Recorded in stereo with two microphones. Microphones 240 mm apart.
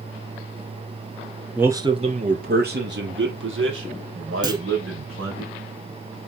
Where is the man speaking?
5° right (ahead or behind), 1.6 m; by 5.4 s 65° right (ahead or behind), 6.5 m.